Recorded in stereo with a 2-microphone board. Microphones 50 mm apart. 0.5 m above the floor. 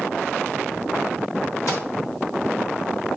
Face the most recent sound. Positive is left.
turn(degrees=65)  # may be behind; listen again after turning